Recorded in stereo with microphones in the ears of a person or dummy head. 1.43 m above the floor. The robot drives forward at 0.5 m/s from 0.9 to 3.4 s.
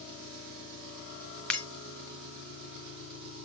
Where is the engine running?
75° right (ahead or behind), 6 m; by 3.5 s 65° right (ahead or behind), 6.5 m.